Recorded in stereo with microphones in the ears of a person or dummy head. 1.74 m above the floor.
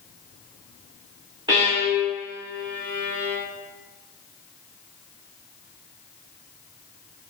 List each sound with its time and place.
1.5 s a violin: 15° right (ahead or behind), 1.0 m